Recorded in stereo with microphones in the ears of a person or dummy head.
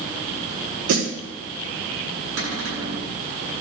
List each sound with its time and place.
0.9 s a snare drum: 60° right (ahead or behind), 4 m
2.4 s a cupboard door: 65° right (ahead or behind), 9 m